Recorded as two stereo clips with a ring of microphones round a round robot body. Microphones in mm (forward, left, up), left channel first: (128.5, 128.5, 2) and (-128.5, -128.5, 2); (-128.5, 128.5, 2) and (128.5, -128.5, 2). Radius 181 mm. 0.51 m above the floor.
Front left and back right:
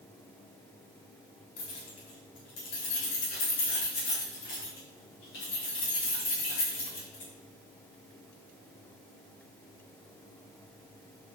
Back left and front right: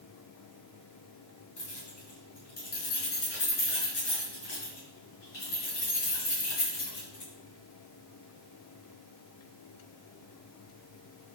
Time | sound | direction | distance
1.6 | keys jangling | 65° left | 4 m